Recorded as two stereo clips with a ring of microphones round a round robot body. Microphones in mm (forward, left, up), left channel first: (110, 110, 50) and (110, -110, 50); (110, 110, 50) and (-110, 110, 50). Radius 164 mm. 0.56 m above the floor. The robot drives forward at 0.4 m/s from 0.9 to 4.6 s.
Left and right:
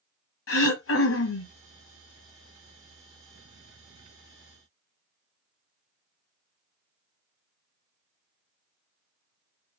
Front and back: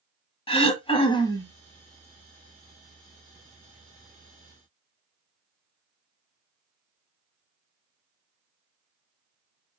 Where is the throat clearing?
65° left, 1.2 m; by 1.5 s 80° left, 1.2 m.